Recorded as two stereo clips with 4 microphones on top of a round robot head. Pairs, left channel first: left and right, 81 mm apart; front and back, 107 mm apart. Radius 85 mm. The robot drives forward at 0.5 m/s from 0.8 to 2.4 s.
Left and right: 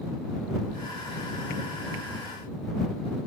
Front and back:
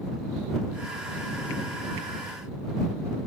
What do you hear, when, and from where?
Only background noise.